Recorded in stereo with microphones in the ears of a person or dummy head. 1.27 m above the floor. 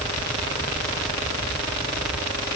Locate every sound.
Only background noise.